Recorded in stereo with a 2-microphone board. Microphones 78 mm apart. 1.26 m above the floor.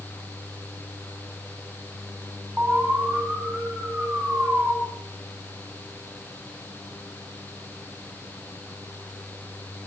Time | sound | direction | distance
2.6 | an alarm | 15° right (ahead or behind) | 7 m